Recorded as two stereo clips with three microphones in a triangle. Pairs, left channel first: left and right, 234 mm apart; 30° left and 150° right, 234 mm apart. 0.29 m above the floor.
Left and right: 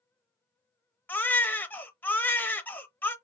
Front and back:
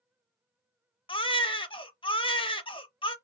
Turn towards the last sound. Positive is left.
turn(degrees=25)